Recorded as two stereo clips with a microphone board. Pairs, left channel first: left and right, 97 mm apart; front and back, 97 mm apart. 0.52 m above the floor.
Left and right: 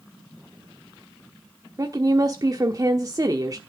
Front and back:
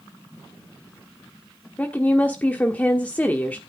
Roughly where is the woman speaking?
Ahead right.